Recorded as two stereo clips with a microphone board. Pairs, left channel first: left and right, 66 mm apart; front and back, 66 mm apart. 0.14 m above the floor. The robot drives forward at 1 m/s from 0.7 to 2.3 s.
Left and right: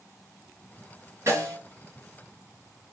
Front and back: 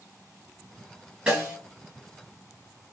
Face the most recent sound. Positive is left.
turn(degrees=-140)